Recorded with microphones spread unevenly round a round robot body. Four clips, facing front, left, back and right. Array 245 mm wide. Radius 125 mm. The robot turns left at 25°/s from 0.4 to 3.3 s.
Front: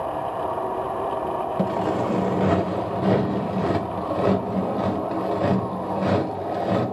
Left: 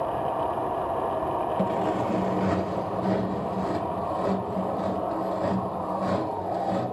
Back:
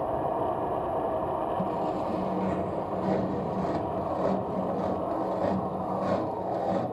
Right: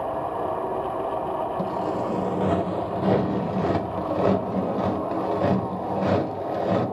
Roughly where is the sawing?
Ahead.